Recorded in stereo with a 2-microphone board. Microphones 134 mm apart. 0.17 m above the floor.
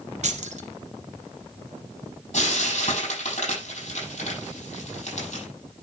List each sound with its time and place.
0.2 s keys jangling: 60° right (ahead or behind), 1.7 m
2.3 s frying: 55° left (ahead or behind), 7 m